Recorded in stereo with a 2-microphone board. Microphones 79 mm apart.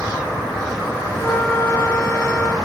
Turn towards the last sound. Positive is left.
turn(degrees=30)  # may be behind; listen again after turning